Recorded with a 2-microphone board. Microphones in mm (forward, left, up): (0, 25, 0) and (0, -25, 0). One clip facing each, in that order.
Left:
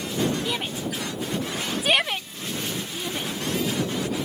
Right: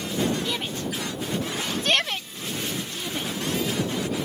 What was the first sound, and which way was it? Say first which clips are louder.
A shout: left 1 dB; 10° left (ahead or behind).